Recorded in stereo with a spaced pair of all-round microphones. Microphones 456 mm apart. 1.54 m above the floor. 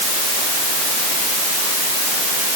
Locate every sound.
Only background noise.